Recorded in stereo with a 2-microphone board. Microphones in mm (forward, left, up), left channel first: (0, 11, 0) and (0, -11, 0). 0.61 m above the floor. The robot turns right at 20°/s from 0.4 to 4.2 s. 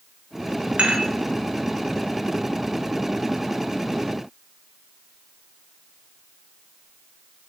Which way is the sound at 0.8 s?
75° right (ahead or behind).